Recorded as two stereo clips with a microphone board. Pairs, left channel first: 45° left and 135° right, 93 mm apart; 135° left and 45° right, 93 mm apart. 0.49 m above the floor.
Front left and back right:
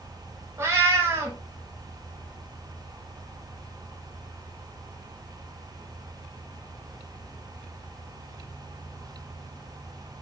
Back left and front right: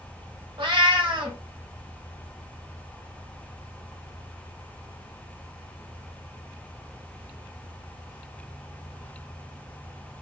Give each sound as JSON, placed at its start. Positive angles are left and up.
{"t": 0.6, "sound": "a cat meowing", "azimuth_deg": -70, "distance_m": 0.8}